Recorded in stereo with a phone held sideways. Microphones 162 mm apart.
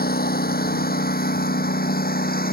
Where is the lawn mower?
70° left (ahead or behind).